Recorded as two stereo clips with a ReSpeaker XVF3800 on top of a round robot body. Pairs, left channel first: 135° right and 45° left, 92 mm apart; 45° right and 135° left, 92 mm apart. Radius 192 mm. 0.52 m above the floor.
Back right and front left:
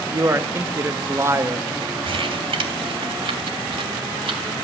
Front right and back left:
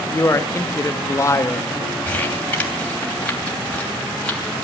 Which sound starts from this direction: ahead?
A man speaking, at 0.1 s.